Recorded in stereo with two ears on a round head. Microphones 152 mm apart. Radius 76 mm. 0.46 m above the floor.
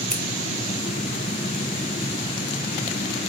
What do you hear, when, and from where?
0.1 s scissors: 5° left (ahead or behind), 1.6 m